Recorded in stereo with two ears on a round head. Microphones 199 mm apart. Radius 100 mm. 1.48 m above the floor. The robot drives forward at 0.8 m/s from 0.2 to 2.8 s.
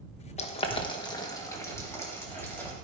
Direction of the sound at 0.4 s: 30° left (ahead or behind).